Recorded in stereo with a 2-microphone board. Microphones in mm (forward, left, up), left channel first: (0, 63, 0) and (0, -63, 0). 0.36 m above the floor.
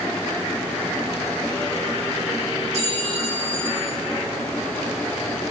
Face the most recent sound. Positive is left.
turn(degrees=-65)  # may be behind; listen again after turning